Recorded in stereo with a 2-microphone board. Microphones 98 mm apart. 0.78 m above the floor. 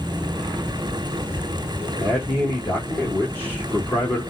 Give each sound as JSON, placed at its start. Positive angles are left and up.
{"t": 2.0, "sound": "a man speaking", "side_deg": 20, "distance_m": 1.6}